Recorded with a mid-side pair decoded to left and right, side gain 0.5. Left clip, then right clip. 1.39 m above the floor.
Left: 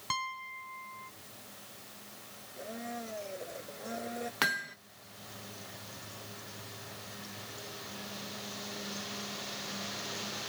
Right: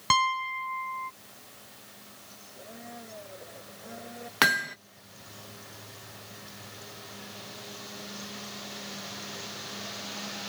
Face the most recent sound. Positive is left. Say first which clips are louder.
# right 8 dB
turn(degrees=-45)